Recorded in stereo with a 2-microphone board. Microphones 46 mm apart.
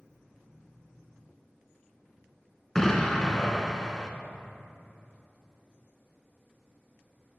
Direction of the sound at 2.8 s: 10° left (ahead or behind).